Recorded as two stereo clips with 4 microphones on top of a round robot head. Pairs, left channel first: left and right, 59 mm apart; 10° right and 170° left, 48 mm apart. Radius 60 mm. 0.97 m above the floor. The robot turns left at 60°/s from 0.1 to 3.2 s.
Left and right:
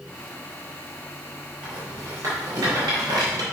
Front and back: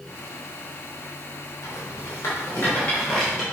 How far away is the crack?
No crack in this recording.